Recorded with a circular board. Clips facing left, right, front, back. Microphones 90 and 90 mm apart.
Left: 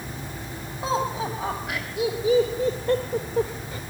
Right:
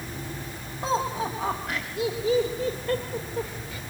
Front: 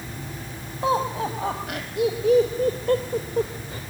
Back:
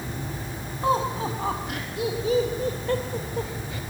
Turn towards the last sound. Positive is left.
turn(degrees=45)